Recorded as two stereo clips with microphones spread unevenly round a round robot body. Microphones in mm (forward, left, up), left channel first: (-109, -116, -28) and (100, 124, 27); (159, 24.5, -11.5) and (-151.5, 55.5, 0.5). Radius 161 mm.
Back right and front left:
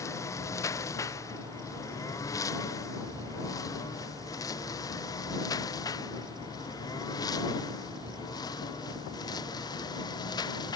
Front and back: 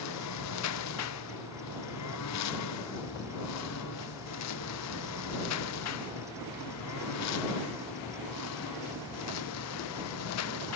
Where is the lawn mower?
50° right; by 10.8 s 55° right.